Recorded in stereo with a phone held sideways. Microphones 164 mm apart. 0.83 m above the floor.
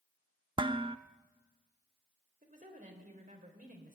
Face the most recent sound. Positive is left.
turn(degrees=-60)  # may be behind; listen again after turning